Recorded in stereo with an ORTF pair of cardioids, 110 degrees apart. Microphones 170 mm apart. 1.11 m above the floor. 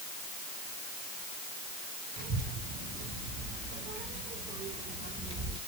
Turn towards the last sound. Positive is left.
turn(degrees=-25)